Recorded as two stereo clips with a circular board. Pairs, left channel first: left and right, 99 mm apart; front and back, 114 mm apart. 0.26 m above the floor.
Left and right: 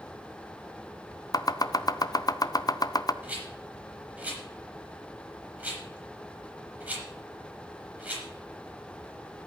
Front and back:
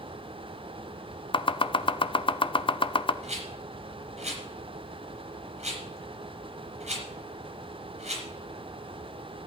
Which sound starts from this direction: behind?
A rattle, at 3.2 s.